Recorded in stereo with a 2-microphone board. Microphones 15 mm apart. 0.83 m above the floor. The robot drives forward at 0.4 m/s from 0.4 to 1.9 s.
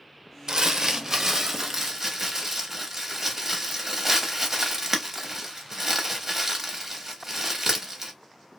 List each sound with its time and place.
0.5 s crumpling: 45° right (ahead or behind), 0.5 m; by 8.1 s 20° right (ahead or behind), 1.0 m